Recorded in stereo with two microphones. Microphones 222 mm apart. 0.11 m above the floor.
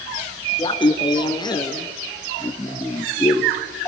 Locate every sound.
0.6 s laughter: 20° left (ahead or behind), 1.2 m; by 3.9 s 10° left (ahead or behind), 2.5 m